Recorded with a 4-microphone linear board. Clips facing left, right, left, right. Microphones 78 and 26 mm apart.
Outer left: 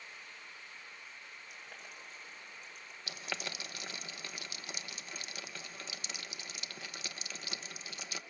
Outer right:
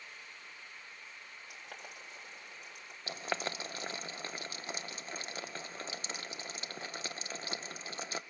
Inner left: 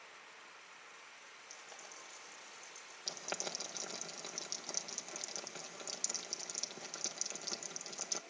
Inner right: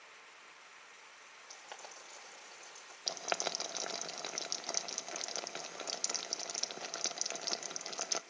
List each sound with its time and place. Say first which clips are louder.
1.5 s boiling: outer right 4 dB, inner right 4 dB; 85° right, 5.5 m
3.1 s boiling: outer right 5 dB, inner right 6 dB; 35° right (ahead or behind), 0.9 m